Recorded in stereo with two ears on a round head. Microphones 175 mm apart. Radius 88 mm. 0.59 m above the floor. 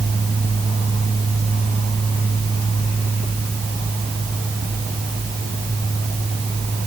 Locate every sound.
Only background noise.